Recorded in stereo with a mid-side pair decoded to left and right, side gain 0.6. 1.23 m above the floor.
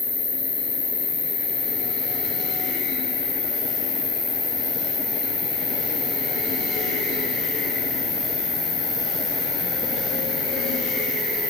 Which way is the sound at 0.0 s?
50° left.